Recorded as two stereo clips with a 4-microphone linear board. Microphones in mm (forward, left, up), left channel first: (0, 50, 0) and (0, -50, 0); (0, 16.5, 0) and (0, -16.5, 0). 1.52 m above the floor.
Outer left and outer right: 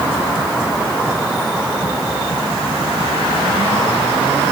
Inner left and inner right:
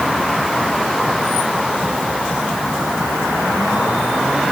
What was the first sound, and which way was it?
Only background noise.